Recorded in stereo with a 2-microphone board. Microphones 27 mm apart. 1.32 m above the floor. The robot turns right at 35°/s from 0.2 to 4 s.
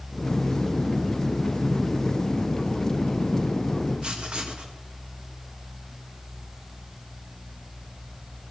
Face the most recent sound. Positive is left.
turn(degrees=-40)  # may be behind; listen again after turning